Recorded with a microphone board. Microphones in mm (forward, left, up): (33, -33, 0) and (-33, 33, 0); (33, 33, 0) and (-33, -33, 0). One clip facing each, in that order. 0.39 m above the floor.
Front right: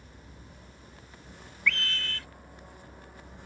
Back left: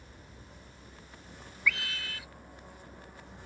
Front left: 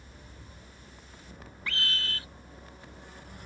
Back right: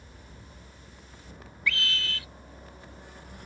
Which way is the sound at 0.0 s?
120° right.